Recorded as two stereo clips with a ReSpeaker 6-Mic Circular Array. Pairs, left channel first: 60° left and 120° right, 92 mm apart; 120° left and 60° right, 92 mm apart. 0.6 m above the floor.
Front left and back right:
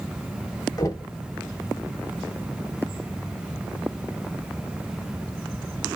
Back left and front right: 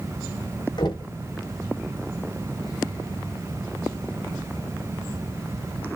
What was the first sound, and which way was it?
Knocking, 100° left.